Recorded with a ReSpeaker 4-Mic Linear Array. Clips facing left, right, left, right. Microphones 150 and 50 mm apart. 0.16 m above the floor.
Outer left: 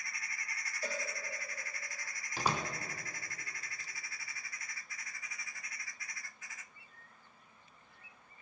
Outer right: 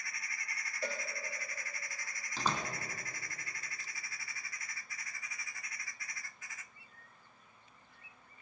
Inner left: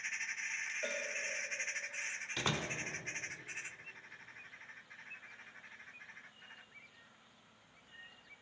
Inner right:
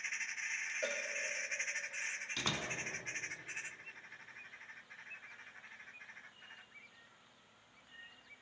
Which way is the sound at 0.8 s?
70° right (ahead or behind).